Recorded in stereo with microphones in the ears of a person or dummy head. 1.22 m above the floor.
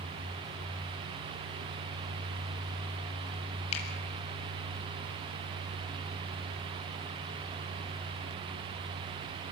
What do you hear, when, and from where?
3.7 s a finger snap: 35° left (ahead or behind), 7.5 m